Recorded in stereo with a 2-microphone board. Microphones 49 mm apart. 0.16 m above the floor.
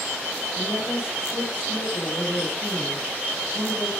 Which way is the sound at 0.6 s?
60° left (ahead or behind).